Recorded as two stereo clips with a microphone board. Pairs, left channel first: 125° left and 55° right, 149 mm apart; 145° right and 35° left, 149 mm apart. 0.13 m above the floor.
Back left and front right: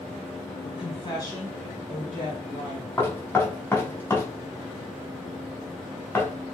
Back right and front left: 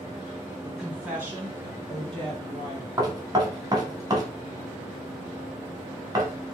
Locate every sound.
0.6 s a woman speaking: 125° left, 2.0 m; by 2.9 s straight ahead, 2.5 m
3.0 s knocking: 65° left, 0.8 m